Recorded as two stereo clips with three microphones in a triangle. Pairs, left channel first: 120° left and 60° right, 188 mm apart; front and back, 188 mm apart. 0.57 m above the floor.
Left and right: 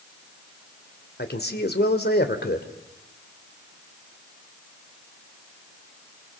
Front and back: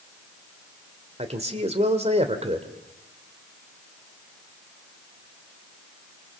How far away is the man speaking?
About 2.5 m.